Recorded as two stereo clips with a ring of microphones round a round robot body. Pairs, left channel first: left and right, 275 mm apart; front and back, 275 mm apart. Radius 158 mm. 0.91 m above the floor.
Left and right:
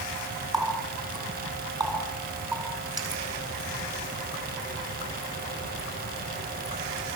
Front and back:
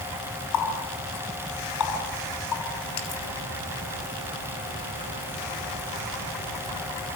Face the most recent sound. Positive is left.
turn(degrees=-15)